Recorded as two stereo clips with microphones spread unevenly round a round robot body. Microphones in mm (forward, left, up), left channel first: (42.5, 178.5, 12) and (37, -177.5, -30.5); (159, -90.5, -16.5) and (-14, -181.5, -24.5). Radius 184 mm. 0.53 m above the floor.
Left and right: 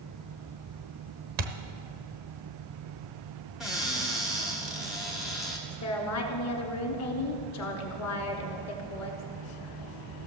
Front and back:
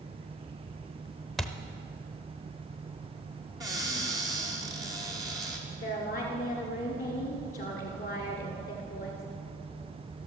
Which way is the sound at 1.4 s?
60° right.